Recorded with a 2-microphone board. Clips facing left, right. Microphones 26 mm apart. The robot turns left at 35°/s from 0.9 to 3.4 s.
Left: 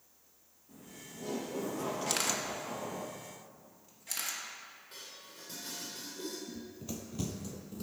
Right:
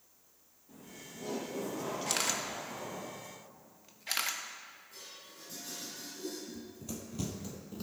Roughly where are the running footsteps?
Left.